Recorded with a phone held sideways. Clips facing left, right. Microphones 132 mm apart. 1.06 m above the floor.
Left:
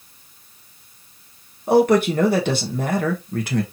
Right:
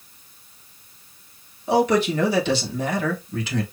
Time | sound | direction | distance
1.7 | a man speaking | 60° left (ahead or behind) | 1.5 m